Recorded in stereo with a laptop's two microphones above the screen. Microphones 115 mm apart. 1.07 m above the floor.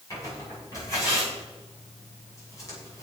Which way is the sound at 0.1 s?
30° left (ahead or behind).